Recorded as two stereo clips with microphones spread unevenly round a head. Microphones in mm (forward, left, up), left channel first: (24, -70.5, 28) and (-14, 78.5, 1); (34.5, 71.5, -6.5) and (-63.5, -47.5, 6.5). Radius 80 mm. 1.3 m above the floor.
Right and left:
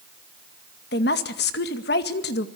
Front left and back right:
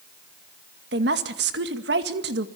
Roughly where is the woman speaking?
Right.